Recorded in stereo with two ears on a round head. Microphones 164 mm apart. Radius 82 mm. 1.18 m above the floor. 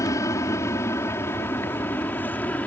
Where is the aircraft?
15° left (ahead or behind); by 2.7 s 10° left (ahead or behind).